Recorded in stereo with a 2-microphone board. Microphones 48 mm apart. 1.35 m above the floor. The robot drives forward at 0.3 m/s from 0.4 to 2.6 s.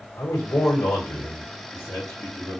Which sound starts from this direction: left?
A man speaking, at 0.2 s.